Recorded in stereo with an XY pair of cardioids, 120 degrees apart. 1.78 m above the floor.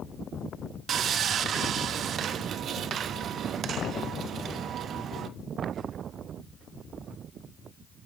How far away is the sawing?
About 0.8 m.